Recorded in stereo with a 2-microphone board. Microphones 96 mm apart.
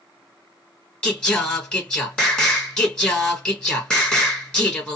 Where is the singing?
10° left (ahead or behind), 1.3 m.